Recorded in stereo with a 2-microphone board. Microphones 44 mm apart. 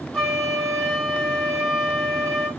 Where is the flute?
10° left (ahead or behind), 1.8 m.